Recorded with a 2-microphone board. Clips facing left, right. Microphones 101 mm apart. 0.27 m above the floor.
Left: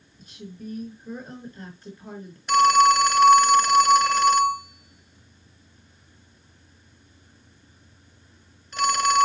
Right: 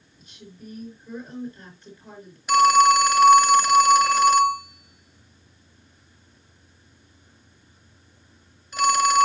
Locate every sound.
0.2 s a woman speaking: 35° left (ahead or behind), 4.5 m
2.5 s a phone ringing: 5° right (ahead or behind), 0.7 m